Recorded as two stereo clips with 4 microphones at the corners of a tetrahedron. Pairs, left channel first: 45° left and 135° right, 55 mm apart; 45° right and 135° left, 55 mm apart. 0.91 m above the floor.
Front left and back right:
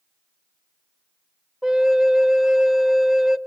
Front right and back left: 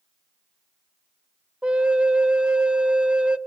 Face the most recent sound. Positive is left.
turn(degrees=165)